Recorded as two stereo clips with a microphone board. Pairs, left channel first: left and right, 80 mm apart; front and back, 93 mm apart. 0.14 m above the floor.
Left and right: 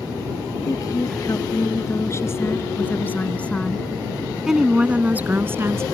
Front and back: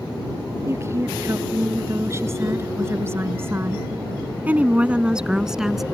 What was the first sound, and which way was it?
A woman speaking, 125° left.